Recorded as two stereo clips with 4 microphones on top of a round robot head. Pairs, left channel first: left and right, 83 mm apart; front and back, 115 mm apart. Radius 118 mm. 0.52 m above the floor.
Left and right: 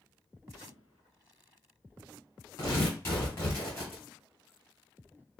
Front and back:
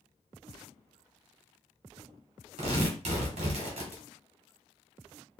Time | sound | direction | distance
2.6 | tearing paper | 155° left | 1.3 m